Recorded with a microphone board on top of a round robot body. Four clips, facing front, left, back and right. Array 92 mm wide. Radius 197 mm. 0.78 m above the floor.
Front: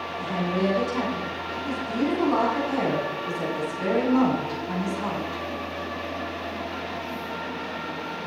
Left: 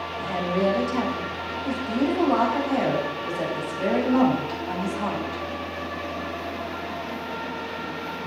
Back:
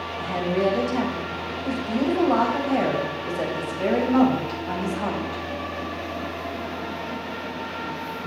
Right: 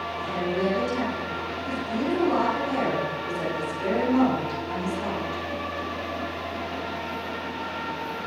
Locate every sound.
0.2 s a woman speaking: 155° left, 5 m